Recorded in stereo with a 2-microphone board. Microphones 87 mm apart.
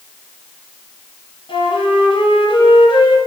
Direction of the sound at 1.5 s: 80° left.